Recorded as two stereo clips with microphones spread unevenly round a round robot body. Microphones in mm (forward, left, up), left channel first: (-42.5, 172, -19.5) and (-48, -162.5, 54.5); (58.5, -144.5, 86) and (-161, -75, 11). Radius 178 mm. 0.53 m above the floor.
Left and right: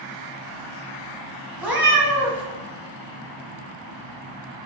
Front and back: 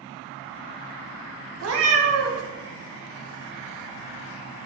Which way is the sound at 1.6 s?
175° right.